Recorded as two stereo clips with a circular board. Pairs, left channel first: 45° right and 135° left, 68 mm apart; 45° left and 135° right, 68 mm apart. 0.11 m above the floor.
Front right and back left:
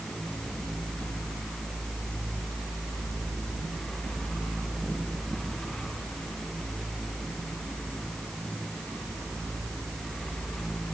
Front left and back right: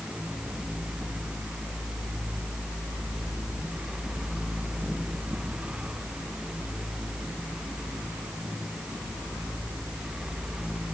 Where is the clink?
No clink in this recording.